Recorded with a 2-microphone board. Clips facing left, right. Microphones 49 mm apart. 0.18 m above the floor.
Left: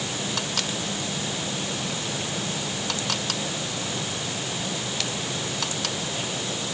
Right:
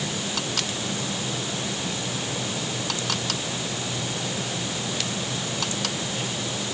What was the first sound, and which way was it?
Only background noise.